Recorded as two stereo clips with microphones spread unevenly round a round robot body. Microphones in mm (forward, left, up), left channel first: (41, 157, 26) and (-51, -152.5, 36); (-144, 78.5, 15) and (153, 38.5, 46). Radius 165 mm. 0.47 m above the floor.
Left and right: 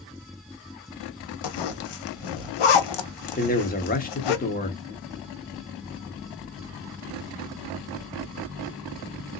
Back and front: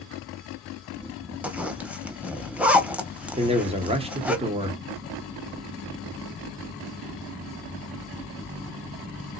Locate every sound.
1.4 s a zipper: 80° left, 0.7 m
3.4 s a man speaking: 55° left, 0.9 m